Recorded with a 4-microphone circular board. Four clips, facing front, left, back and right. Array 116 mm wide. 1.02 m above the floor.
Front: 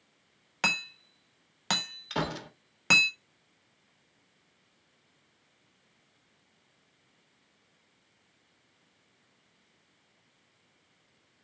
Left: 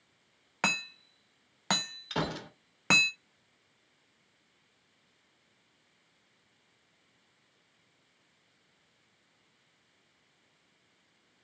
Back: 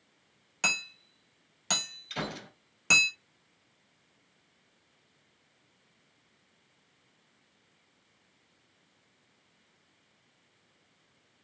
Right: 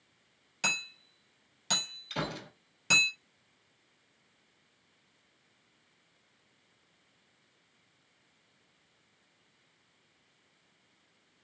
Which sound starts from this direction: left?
Hammering, at 0.6 s.